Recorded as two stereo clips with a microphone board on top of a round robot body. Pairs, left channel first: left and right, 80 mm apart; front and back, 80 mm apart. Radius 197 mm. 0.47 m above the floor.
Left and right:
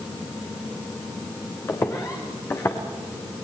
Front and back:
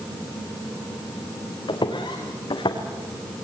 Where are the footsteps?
30° left, 3.5 m; by 2.8 s 25° left, 3 m.